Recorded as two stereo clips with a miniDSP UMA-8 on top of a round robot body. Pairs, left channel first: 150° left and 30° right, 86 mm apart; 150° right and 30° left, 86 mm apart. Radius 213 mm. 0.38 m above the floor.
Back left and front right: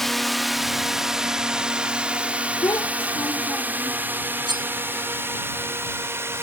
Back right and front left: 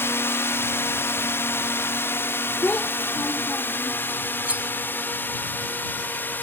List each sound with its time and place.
0.0 s a drone: 125° right; by 6.4 s 85° right
2.6 s a child speaking: 140° left
4.5 s cutlery clinking: 40° right